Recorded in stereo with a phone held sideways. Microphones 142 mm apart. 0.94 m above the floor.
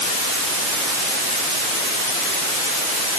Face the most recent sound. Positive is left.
No sound to turn to.